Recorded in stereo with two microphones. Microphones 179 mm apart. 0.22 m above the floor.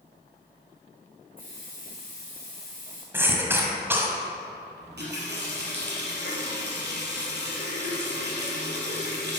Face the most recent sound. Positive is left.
turn(degrees=-70)  # may be behind; listen again after turning